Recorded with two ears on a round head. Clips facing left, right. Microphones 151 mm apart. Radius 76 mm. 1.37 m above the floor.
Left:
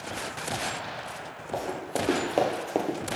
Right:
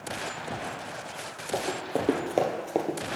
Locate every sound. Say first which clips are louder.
1.5 s running footsteps: right 1 dB; 25° right (ahead or behind), 1.8 m; by 3.0 s 5° left (ahead or behind), 1.3 m